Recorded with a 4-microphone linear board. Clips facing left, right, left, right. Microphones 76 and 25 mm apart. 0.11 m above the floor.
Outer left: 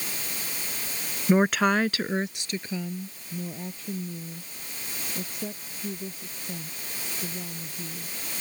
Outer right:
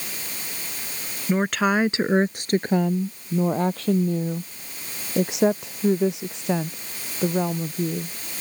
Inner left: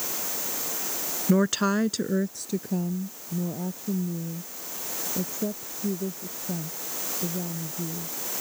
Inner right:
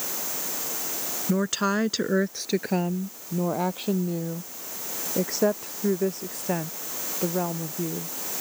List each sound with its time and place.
1.3 s a woman speaking: 15° left (ahead or behind); by 8.1 s 70° right (ahead or behind)